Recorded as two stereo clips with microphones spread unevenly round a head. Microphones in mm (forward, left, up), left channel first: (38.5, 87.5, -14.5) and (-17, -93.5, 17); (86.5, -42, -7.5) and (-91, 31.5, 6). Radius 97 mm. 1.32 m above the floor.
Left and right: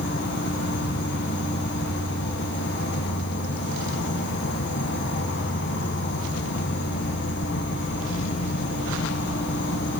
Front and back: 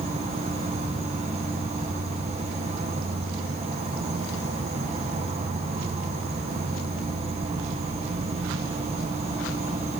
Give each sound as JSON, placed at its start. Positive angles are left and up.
{"t": 0.0, "sound": "an insect", "azimuth_deg": 95, "distance_m": 1.2}